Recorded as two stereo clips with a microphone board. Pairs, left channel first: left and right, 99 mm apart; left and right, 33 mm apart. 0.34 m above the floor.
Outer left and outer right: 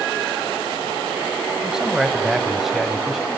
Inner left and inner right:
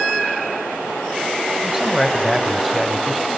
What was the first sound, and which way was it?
A man speaking, 5° right (ahead or behind).